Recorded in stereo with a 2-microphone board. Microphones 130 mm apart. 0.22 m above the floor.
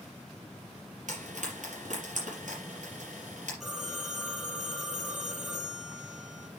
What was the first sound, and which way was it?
Frying, 70° right (ahead or behind).